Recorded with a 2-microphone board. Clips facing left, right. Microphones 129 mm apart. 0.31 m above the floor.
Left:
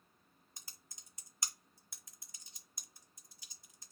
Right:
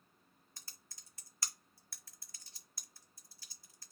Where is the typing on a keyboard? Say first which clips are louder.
Left 1 dB; 20° left (ahead or behind), 0.6 m.